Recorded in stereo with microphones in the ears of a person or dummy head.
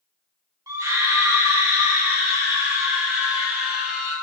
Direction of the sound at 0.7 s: 15° right (ahead or behind).